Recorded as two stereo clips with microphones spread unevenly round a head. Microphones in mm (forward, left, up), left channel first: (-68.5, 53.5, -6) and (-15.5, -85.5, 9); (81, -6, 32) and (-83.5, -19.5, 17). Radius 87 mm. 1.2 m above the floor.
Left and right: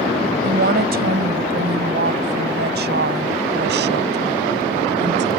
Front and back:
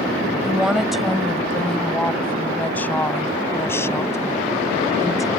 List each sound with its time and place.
0.4 s a woman speaking: 90° right; by 5.3 s 65° right